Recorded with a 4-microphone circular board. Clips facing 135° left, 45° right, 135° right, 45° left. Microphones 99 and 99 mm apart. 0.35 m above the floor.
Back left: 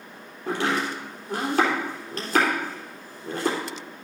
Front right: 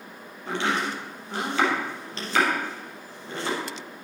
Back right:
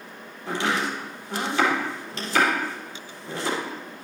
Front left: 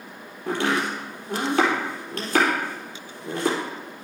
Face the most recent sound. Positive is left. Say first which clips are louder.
# back left 1 dB, front left 2 dB
turn(degrees=85)